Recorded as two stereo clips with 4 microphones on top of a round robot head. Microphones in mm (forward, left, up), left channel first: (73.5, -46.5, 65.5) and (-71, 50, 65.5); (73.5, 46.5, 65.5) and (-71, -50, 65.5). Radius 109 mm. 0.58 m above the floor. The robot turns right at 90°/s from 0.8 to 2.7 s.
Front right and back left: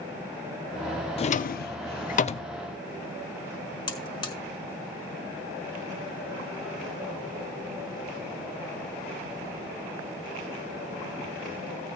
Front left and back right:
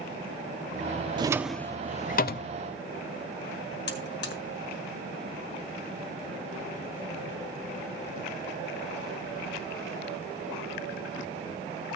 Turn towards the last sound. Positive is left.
turn(degrees=30)